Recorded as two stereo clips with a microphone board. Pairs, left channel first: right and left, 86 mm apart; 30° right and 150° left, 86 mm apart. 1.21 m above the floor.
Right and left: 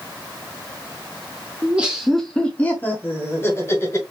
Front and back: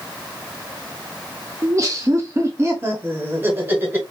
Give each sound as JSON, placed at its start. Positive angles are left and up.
{"t": 1.6, "sound": "laughter", "azimuth_deg": 145, "distance_m": 0.7}